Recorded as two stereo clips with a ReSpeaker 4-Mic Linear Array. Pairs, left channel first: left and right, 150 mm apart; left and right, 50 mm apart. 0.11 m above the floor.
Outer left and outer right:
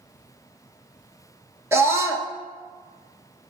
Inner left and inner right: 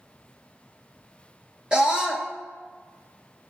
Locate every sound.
1.7 s a scream: 15° right (ahead or behind), 1.2 m